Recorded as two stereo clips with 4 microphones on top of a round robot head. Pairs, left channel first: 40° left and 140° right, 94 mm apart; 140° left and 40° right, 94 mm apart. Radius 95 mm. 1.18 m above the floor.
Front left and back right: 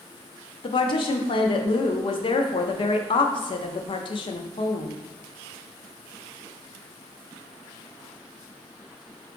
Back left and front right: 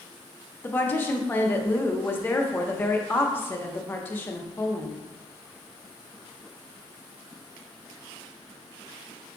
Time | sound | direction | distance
0.6 | a woman speaking | 70° left | 0.6 m